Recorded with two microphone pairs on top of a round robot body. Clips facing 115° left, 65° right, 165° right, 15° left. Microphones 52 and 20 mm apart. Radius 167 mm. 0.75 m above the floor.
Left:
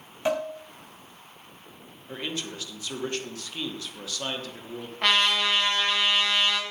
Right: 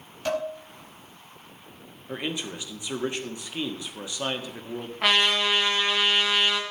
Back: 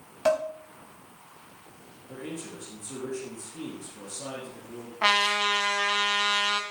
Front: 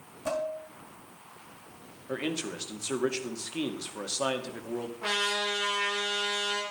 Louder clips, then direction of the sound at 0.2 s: Left 1 dB, back 7 dB; straight behind.